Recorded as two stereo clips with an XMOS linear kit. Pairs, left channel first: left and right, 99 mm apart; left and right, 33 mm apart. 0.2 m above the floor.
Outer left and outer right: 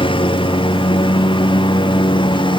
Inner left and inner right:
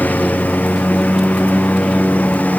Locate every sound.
0.0 s a lawn mower: 55° left (ahead or behind); by 2.6 s 50° left (ahead or behind)